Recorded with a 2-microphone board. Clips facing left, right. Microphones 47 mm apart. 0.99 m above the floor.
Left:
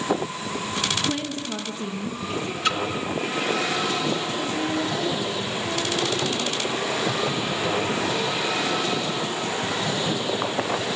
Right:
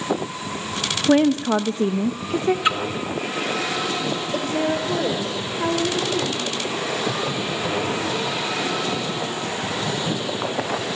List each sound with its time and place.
1.1 s a woman speaking: 55° right (ahead or behind), 0.9 m
2.6 s a splash: 15° right (ahead or behind), 1.5 m
4.3 s a woman speaking: 80° right, 4 m